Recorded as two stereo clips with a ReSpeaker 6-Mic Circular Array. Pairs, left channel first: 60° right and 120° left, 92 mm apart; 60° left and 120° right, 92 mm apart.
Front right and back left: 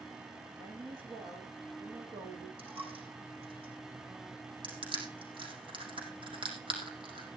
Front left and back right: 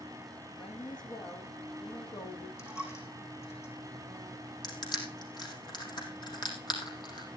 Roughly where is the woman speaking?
Left.